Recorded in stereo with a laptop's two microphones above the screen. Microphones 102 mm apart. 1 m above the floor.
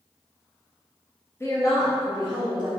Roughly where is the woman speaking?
Left.